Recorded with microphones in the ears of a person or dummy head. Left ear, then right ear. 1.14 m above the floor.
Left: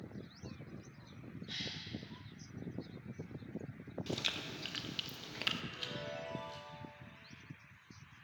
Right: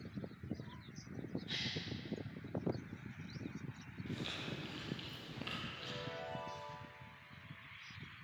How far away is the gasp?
About 2.5 m.